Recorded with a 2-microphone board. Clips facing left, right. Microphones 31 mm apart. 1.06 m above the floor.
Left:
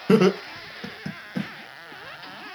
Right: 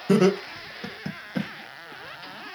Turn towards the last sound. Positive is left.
turn(degrees=-15)  # may be behind; listen again after turning